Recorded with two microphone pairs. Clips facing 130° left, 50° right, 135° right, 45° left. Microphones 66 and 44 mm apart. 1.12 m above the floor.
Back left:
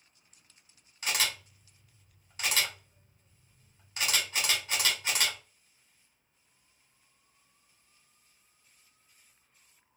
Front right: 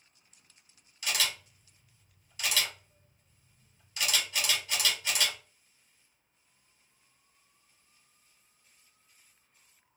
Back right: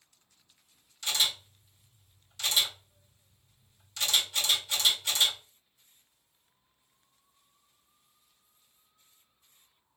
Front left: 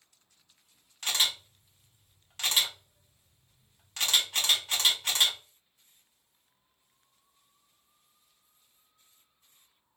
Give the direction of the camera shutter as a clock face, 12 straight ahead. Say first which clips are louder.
Back left 1 dB, front left 1 dB; 9 o'clock.